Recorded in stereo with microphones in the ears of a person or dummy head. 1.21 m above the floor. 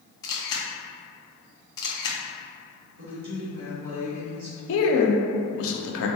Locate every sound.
0.2 s a camera shutter: 20° left (ahead or behind), 0.5 m
3.0 s a woman speaking: 70° right (ahead or behind), 1.4 m
4.7 s a man speaking: 70° left (ahead or behind), 0.6 m